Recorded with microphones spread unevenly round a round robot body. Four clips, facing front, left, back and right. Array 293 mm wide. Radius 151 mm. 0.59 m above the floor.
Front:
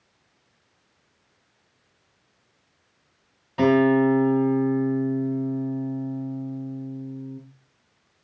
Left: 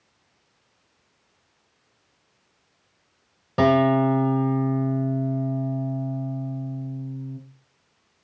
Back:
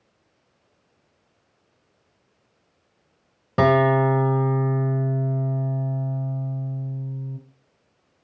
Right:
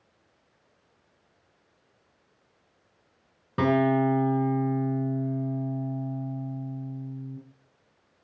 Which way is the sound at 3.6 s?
Straight behind.